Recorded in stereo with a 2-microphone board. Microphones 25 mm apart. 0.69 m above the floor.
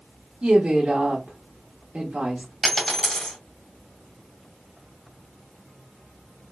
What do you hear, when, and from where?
0.4 s a woman speaking: 50° right (ahead or behind), 1.4 m
2.6 s a dropped coin: 15° left (ahead or behind), 2 m